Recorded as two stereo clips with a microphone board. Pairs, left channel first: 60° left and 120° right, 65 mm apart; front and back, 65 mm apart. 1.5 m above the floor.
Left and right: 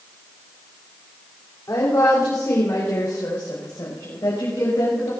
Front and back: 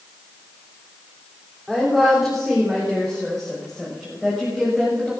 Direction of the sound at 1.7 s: 90° left.